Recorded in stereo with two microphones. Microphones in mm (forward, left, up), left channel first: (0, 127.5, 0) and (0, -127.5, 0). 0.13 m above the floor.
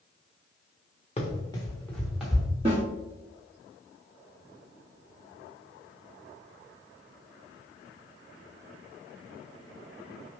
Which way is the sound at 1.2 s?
25° left (ahead or behind).